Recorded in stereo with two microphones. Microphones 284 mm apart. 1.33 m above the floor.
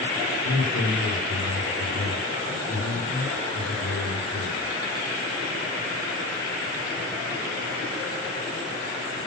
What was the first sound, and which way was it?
A man speaking, 75° left (ahead or behind).